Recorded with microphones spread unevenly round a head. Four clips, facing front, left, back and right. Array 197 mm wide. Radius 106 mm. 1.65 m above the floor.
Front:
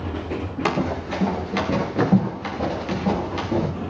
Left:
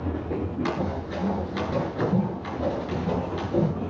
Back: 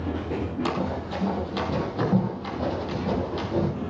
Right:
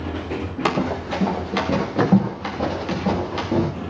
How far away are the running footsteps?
About 6.5 m.